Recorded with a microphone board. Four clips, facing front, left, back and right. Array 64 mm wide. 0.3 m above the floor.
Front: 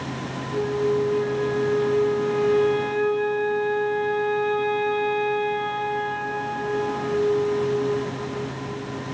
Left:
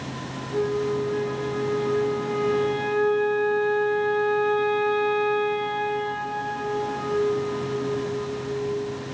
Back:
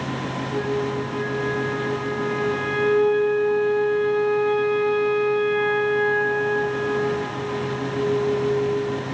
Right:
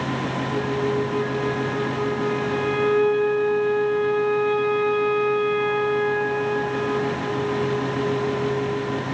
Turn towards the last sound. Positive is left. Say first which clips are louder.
# left 1 dB, front 3 dB
turn(degrees=-125)